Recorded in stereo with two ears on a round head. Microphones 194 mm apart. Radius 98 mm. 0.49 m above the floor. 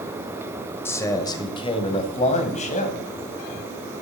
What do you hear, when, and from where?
0.8 s a man speaking: 10° left (ahead or behind), 1.7 m; by 3.0 s 40° left (ahead or behind), 2.5 m